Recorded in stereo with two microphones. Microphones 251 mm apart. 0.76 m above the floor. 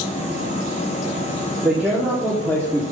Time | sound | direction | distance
1.6 | a man speaking | 5° right (ahead or behind) | 2 m